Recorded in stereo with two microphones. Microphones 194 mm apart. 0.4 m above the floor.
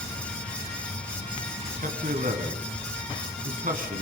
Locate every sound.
1.8 s a man speaking: 45° right (ahead or behind), 3 m